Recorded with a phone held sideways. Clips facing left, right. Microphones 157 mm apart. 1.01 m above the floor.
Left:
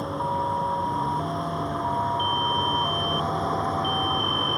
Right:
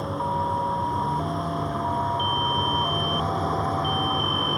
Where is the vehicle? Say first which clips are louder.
Even; centre (ahead or behind).